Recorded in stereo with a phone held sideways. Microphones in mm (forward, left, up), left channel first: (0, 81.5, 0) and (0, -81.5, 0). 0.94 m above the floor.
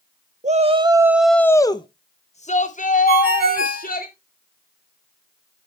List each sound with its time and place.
0.4 s a shout: 50° right (ahead or behind), 0.6 m; by 4.1 s 60° left (ahead or behind), 1.7 m
3.1 s a ringtone: 85° right, 2.5 m